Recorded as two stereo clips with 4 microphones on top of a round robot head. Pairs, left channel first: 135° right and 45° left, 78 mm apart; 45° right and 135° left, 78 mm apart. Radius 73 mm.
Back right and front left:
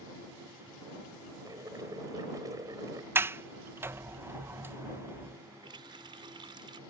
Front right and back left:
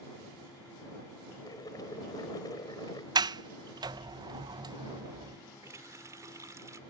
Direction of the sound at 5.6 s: 80° left.